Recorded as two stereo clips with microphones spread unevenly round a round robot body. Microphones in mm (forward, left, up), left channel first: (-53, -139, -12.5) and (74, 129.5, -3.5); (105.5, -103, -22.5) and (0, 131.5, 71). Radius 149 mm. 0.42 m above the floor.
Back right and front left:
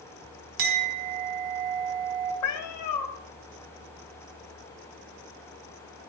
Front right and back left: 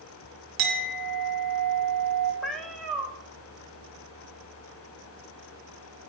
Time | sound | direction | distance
0.6 | a clink | 85° left | 3 m
2.4 | a cat meowing | 150° right | 1.4 m